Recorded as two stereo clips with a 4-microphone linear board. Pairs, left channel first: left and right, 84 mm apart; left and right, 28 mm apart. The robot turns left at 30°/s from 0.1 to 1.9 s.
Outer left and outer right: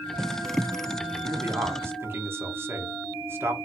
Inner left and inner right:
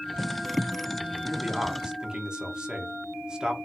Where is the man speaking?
25° right (ahead or behind), 0.8 m.